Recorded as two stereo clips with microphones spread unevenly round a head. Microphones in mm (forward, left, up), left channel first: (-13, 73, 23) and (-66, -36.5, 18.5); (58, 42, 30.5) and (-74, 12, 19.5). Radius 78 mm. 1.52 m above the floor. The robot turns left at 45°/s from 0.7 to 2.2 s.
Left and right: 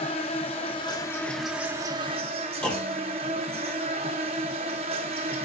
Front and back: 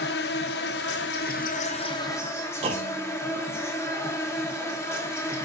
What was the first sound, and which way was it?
An insect, 5° left.